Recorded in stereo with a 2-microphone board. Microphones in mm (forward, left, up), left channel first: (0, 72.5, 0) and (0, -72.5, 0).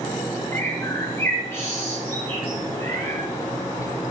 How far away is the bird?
About 4.5 m.